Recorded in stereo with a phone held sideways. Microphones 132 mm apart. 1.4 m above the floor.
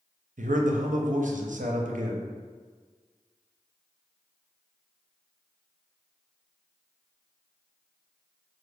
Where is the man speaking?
80° right, 0.5 m.